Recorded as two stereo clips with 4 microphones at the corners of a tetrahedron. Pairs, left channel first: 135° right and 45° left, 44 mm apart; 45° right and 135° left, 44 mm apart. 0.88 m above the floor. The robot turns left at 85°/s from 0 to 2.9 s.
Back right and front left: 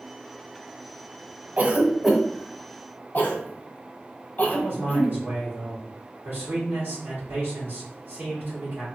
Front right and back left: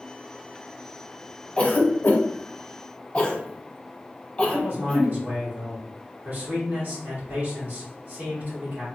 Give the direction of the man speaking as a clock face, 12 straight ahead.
9 o'clock.